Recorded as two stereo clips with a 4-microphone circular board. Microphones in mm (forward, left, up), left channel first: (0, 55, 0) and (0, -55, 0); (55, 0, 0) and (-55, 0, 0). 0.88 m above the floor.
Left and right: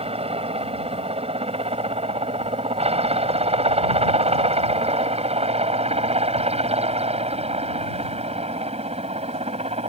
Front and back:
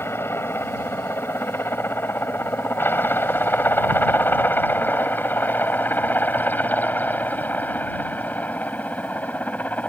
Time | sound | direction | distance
0.0 | a helicopter | 70° right | ?